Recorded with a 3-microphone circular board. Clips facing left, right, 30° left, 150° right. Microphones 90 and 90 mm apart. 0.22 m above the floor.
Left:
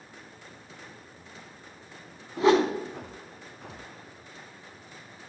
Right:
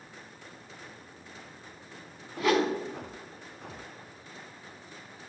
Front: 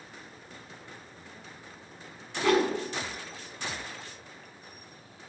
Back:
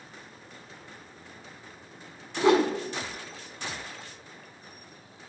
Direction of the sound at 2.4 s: 150° left.